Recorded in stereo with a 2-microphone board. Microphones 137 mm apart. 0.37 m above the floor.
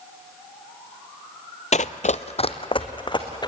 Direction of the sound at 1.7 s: 60° left (ahead or behind).